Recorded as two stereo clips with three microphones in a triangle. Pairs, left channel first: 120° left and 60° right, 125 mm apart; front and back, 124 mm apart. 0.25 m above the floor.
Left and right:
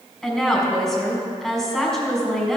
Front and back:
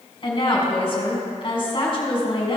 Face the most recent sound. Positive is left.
turn(degrees=35)